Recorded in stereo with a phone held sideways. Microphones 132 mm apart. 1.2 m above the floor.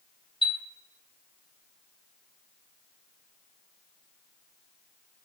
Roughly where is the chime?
Left.